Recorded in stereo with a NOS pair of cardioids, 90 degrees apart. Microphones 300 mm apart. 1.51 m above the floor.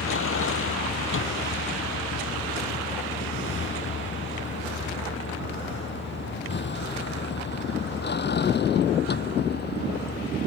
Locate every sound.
0.0 s a vehicle: 45° left; by 10.5 s 30° left